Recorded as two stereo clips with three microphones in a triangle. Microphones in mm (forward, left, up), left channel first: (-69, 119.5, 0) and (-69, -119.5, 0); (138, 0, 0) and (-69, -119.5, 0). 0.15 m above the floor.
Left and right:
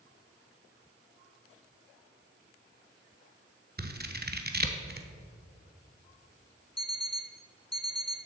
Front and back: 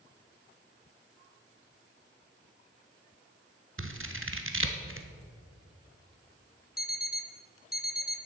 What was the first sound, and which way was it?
Scissors, 135° right.